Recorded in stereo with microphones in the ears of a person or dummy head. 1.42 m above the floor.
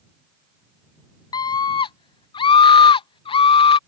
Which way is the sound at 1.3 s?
25° left (ahead or behind).